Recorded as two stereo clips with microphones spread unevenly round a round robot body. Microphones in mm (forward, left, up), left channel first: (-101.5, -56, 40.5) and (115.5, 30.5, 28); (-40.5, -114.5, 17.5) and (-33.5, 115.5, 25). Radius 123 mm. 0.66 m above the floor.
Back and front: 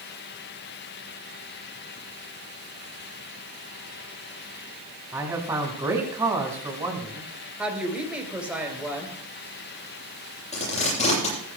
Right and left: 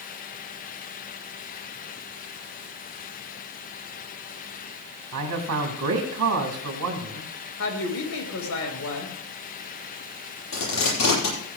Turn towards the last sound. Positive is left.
turn(degrees=-95)